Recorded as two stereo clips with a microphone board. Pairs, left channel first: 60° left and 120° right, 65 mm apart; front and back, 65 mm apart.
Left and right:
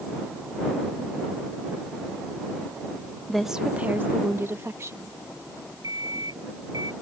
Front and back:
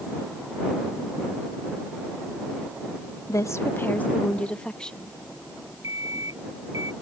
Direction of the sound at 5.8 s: 140° right.